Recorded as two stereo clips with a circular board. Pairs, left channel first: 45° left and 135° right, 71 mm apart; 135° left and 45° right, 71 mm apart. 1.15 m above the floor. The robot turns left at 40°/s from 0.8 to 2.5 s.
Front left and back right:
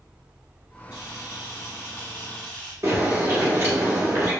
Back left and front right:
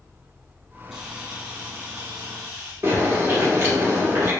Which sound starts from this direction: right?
A bird, at 2.8 s.